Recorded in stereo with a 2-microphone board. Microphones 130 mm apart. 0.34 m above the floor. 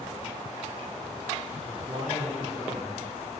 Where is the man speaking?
65° right (ahead or behind), 3 m; by 3.0 s 60° right (ahead or behind), 4 m.